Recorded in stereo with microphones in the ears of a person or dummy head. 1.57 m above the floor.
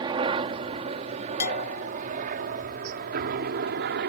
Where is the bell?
55° left (ahead or behind).